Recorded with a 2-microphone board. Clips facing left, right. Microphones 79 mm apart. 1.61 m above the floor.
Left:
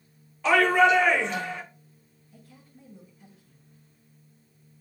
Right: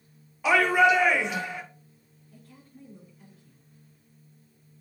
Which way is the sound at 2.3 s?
55° right (ahead or behind).